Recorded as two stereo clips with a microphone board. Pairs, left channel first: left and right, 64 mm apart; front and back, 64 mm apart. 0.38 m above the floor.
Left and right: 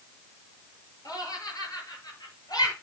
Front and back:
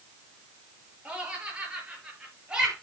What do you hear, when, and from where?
1.1 s laughter: 110° left, 7 m; by 2.7 s 105° left, 6.5 m